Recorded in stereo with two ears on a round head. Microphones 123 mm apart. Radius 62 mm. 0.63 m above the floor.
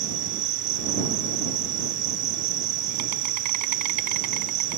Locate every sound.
0.0 s an insect: 60° right (ahead or behind)